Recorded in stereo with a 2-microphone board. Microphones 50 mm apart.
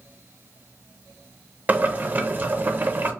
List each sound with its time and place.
1.7 s boiling: 35° right (ahead or behind), 0.5 m